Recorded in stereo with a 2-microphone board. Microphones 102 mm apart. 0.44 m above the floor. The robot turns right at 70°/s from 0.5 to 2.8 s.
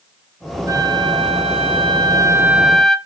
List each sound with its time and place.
0.7 s a flute: 145° right, 0.9 m; by 3.0 s straight ahead, 0.9 m